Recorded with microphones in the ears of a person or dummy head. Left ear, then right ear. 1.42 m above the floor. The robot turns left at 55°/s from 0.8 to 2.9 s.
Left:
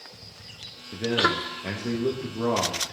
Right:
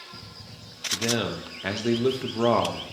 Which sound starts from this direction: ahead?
A man speaking, at 0.9 s.